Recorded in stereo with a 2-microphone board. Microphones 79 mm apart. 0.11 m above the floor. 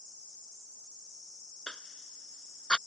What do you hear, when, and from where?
1.7 s a cough: 10° left (ahead or behind)